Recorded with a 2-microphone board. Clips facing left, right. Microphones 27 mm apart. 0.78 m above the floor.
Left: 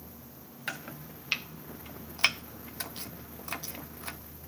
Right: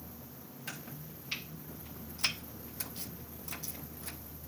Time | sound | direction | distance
0.7 | chopping | 50° left (ahead or behind) | 0.8 m